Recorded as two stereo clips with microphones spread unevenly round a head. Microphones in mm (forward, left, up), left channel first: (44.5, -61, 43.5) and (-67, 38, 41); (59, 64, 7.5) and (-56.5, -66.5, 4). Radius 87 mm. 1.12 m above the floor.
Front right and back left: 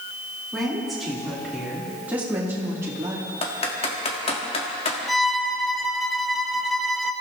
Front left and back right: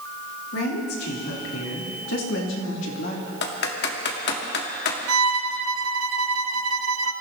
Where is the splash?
I don't hear a splash.